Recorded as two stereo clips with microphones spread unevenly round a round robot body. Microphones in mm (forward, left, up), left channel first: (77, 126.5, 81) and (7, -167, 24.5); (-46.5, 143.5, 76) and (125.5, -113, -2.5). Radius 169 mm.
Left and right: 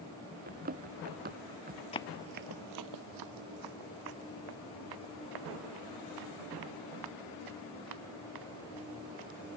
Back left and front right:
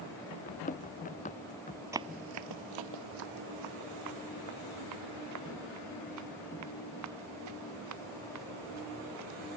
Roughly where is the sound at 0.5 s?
Behind.